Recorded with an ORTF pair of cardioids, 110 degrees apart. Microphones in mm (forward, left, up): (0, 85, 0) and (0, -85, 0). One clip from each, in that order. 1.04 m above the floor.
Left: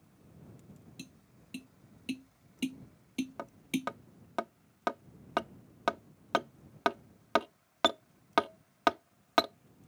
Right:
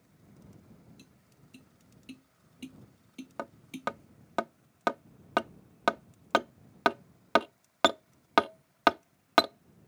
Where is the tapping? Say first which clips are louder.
Left 7 dB; 55° left.